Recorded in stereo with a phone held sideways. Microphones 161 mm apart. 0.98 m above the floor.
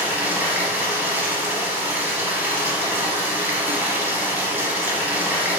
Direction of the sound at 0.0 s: 10° right (ahead or behind).